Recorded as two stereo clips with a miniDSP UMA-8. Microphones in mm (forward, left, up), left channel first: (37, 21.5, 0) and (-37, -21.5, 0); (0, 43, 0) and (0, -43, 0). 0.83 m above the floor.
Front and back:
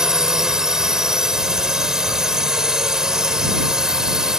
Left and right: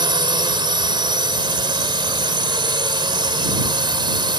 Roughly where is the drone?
Ahead right.